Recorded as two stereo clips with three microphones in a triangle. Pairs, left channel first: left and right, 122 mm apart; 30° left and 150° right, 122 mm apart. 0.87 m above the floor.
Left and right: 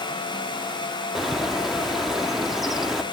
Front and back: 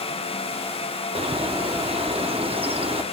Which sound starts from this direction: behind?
A bird, at 1.1 s.